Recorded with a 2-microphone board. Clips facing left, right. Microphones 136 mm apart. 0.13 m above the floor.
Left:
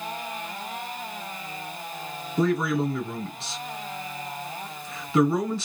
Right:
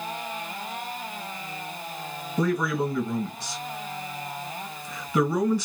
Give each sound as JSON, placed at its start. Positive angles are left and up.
{"t": 2.4, "sound": "a man speaking", "side_deg": 20, "distance_m": 1.9}